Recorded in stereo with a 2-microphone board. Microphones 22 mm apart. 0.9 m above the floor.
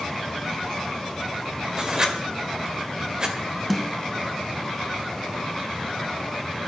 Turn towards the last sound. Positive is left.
turn(degrees=5)  # may be behind; listen again after turning